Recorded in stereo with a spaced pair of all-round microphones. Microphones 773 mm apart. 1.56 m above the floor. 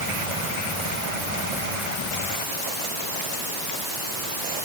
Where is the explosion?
I don't hear an explosion.